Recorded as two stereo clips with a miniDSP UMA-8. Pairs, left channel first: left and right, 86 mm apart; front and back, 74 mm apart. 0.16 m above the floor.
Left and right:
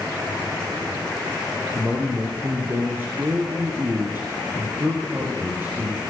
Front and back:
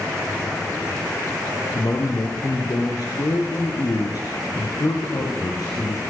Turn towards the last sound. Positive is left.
turn(degrees=-30)